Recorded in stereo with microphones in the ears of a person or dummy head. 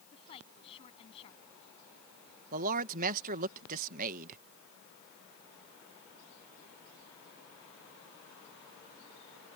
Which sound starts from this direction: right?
A man speaking, at 2.5 s.